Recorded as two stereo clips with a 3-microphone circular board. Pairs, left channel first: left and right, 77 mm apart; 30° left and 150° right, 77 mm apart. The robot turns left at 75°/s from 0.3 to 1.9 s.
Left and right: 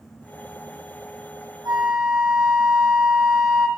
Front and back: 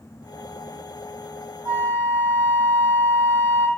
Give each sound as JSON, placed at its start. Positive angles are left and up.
{"t": 1.6, "sound": "a flute", "azimuth_deg": -120, "distance_m": 1.9}